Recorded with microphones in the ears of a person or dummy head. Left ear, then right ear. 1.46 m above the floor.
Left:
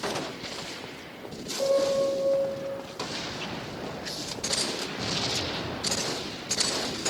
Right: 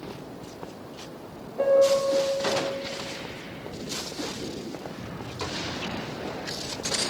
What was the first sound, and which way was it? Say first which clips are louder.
A piano: right 4 dB; 50° right (ahead or behind).